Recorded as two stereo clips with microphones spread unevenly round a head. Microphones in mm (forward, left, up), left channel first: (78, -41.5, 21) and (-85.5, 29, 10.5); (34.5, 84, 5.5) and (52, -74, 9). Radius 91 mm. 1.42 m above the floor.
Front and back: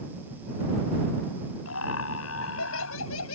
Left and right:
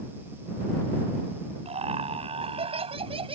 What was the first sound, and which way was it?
Laughter, 35° right.